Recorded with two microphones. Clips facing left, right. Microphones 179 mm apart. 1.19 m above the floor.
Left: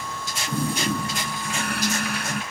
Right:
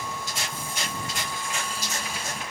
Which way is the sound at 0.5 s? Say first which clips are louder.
Left 10 dB; 70° left (ahead or behind).